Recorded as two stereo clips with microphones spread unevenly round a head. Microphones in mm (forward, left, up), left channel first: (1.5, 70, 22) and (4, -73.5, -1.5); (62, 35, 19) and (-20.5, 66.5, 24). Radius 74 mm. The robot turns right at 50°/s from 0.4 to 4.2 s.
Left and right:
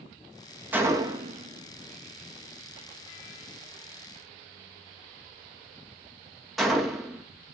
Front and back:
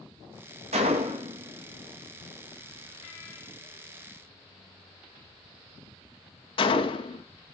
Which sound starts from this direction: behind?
A gunshot, at 0.7 s.